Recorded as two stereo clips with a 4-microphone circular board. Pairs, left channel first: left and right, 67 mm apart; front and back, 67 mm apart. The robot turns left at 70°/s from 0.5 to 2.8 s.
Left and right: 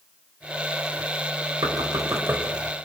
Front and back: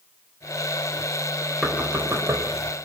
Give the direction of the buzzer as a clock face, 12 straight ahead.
No buzzer in this recording.